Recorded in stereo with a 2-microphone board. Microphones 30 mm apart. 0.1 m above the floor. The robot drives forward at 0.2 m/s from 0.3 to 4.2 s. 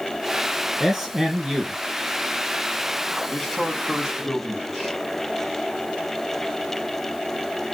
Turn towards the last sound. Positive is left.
turn(degrees=0)  # may be behind; listen again after turning